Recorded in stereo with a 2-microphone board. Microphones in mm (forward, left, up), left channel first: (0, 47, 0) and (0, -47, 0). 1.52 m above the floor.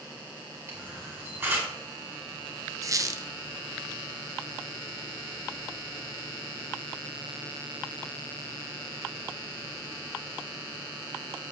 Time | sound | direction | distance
0.7 | a camera shutter | 20° right (ahead or behind) | 5 m
2.8 | a squeak | 35° right (ahead or behind) | 0.8 m